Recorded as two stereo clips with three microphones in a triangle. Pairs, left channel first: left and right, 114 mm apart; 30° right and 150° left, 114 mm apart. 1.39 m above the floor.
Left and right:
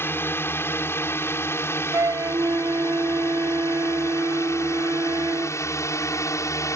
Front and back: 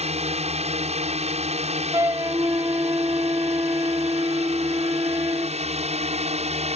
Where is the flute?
150° right.